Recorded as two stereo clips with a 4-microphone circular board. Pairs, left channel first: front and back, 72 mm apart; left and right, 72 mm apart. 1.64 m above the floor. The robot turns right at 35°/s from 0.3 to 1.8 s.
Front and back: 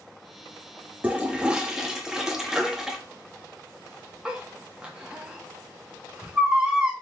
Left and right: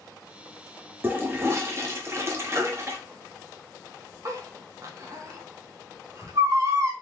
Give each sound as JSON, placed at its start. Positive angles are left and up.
{"t": 1.0, "sound": "a toilet flushing", "azimuth_deg": -130, "distance_m": 0.7}
{"t": 2.5, "sound": "a baby crying", "azimuth_deg": -110, "distance_m": 0.8}